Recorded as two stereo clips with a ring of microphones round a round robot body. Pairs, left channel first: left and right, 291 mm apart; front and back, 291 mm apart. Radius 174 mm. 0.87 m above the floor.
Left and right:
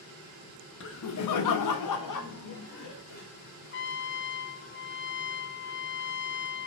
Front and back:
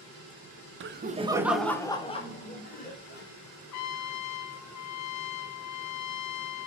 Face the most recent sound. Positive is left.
turn(degrees=35)